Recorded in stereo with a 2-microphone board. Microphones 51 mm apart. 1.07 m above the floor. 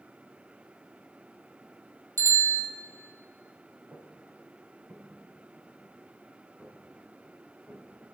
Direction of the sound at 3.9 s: 55° right (ahead or behind).